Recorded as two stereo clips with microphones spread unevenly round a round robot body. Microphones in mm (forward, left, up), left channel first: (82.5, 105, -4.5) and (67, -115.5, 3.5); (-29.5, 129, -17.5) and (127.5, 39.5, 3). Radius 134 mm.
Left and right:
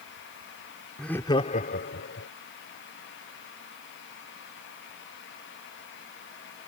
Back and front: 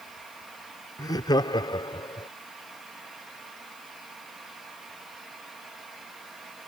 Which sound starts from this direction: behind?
Laughter, at 1.0 s.